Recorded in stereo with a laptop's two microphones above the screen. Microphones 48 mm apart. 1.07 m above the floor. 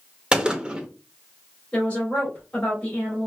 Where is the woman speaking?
20° left (ahead or behind), 3 m.